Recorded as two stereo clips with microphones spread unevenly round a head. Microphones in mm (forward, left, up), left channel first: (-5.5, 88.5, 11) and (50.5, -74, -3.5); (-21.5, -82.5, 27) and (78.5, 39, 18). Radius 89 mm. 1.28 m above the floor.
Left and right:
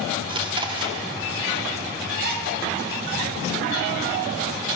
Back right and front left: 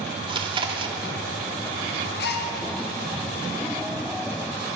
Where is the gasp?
110° right, 1.5 m.